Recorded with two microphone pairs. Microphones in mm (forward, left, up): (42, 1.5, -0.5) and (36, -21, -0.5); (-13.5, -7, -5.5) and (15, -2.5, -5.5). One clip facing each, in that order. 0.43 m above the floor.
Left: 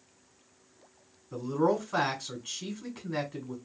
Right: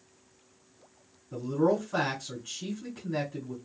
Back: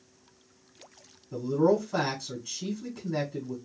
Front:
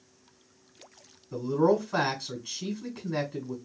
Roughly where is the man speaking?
Ahead left.